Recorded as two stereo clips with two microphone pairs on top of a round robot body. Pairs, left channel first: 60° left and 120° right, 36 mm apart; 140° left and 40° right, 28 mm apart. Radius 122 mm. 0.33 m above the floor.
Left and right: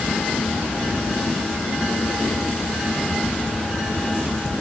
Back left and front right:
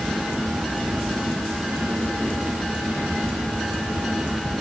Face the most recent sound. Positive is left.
No sound to turn to.